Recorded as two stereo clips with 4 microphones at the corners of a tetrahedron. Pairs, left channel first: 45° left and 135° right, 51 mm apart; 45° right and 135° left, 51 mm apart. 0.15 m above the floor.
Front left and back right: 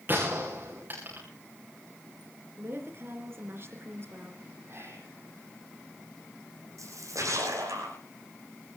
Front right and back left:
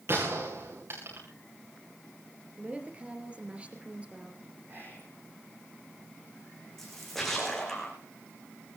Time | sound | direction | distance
0.1 | a gunshot | 170° left | 7.5 m
2.6 | a woman speaking | 165° right | 3 m
4.7 | whispering | 175° right | 8 m
6.8 | a splash | 130° right | 7.5 m